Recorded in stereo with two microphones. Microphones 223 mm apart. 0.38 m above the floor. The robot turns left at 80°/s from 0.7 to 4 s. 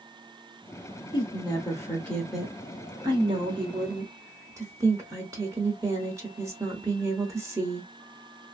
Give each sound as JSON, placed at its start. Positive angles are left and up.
{"t": 1.1, "sound": "a woman speaking", "side_deg": 20, "distance_m": 0.8}